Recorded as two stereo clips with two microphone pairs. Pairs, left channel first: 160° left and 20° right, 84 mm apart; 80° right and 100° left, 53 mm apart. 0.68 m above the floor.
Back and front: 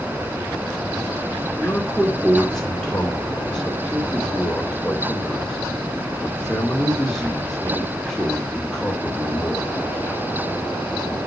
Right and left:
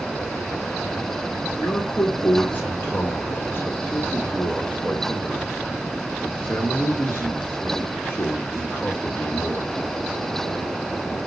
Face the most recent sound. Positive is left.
turn(degrees=-115)